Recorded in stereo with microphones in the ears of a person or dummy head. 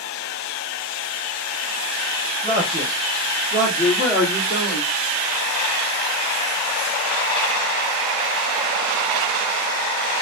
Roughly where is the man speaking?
Centre.